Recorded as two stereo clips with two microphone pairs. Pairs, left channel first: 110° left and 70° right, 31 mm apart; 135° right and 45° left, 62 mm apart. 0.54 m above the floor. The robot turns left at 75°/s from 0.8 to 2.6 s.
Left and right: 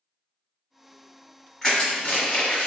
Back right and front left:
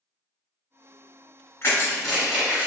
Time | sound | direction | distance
1.6 | crushing | 175° right | 1.5 m